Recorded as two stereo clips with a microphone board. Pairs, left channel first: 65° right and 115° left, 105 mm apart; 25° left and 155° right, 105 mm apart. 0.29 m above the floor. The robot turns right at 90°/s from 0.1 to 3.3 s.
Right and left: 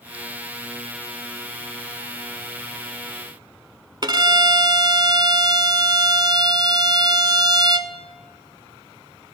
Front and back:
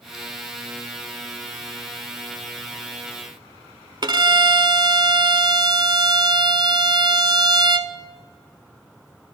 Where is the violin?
160° left, 0.5 m.